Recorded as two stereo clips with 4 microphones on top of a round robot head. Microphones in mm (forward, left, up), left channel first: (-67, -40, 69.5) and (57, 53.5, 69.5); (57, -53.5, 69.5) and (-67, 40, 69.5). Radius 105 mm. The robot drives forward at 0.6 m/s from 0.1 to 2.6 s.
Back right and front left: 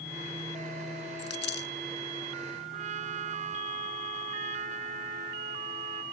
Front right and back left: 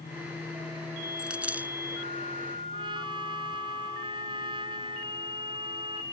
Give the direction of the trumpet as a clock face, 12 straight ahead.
9 o'clock.